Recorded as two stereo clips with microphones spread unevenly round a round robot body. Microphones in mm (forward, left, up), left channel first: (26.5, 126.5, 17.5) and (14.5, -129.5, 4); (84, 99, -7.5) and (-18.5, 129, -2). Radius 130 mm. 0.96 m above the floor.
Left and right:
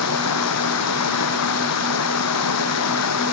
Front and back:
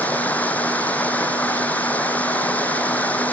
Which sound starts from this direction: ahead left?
Running water, at 0.0 s.